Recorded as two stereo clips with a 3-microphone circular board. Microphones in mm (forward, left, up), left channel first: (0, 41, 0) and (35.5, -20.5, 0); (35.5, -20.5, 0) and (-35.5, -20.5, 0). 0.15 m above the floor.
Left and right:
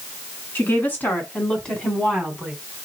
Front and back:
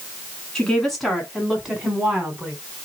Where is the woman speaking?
80° left, 1.5 m; by 2.5 s 140° right, 1.2 m.